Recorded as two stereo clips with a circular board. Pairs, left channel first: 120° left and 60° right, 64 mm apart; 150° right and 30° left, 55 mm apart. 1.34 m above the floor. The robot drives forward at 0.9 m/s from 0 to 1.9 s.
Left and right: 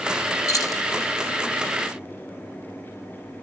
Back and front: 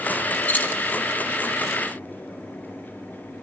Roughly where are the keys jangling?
Behind left.